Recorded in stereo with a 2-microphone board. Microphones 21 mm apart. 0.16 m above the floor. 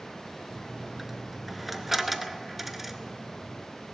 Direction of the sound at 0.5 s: 5° right (ahead or behind).